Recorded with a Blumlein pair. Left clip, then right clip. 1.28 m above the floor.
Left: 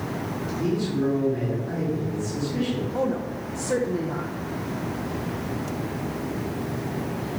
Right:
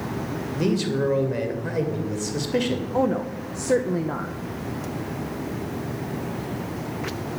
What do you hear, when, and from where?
0.6 s a man speaking: 50° right, 2.5 m
2.9 s a woman speaking: 20° right, 0.7 m